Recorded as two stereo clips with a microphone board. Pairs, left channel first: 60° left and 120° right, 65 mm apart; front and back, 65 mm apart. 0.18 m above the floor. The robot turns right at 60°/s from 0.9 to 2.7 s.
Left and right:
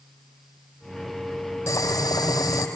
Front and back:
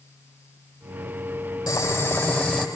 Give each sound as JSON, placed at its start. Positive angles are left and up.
{"t": 1.7, "sound": "boiling", "azimuth_deg": 15, "distance_m": 4.5}